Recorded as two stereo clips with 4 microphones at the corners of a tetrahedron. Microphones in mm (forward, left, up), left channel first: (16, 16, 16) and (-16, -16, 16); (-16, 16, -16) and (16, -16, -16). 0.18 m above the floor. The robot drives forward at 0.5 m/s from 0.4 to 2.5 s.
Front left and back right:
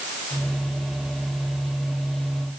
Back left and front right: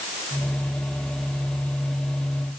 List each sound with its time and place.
Only background noise.